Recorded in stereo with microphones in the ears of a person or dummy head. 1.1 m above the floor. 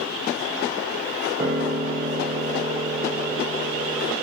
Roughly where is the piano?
Right.